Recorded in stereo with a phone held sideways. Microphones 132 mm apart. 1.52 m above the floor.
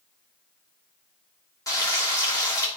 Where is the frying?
25° left (ahead or behind), 2.0 m.